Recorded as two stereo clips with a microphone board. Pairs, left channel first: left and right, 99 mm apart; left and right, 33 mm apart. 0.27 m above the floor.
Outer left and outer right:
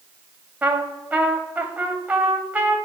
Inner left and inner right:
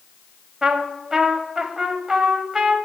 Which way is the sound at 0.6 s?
15° right (ahead or behind).